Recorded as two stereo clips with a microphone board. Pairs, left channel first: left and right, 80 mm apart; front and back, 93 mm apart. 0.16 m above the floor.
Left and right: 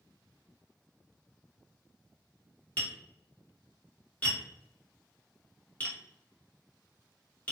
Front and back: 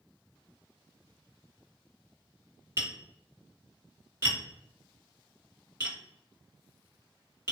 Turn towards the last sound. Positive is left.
turn(degrees=140)